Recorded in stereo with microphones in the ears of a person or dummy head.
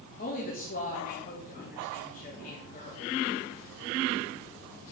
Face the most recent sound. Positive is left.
turn(degrees=35)  # may be behind; listen again after turning